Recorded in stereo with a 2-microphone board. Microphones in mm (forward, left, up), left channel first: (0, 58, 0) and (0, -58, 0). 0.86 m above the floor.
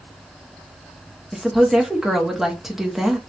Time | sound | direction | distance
1.3 | a woman speaking | centre (ahead or behind) | 1.1 m